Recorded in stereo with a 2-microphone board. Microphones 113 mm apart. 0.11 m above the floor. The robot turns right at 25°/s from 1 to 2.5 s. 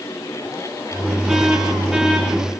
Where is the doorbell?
No doorbell in this recording.